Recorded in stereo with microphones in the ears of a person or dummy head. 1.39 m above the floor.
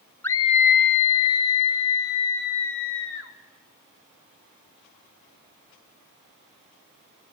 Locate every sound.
0.2 s a scream: 10° left (ahead or behind), 0.6 m; by 3.3 s 65° left (ahead or behind), 2.5 m